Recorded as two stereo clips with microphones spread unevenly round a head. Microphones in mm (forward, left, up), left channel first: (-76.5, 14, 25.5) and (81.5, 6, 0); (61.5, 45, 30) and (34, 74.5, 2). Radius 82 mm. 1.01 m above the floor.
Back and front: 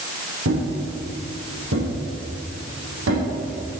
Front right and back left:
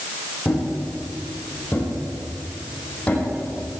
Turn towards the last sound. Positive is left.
turn(degrees=0)